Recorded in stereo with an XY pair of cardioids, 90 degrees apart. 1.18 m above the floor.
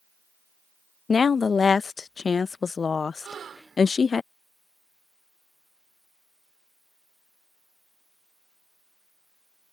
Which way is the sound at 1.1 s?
40° left.